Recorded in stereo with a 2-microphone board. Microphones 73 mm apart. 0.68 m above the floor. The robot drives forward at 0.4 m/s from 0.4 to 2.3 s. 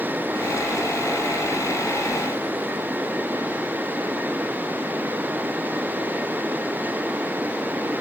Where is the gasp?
I don't hear a gasp.